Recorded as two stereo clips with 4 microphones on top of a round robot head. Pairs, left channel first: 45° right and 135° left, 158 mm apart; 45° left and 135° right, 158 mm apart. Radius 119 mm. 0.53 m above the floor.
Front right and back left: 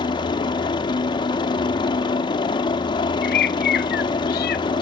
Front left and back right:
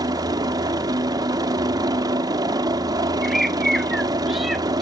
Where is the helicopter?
85° right.